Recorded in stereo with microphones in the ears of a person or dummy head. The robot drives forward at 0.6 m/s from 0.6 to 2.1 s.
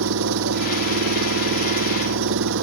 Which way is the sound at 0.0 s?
85° right.